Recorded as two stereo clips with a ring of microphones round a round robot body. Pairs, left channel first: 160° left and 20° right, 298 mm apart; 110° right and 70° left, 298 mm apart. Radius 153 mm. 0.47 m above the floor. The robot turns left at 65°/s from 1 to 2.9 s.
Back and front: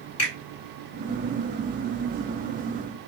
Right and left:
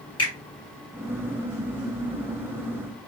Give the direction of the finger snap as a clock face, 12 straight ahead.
6 o'clock.